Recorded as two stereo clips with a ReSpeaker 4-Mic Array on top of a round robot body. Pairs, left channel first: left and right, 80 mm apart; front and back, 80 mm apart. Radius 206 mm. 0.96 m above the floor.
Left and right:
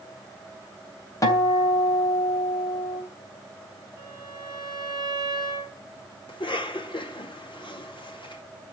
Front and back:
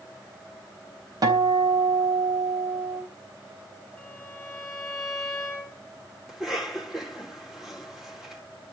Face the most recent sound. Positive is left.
turn(degrees=95)